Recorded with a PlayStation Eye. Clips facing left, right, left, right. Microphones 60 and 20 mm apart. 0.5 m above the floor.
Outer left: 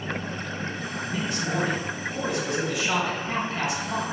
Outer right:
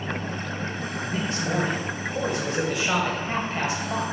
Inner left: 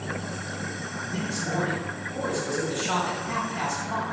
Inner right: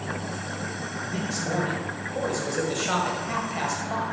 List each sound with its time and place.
1.0 s a man speaking: 35° right (ahead or behind), 1.9 m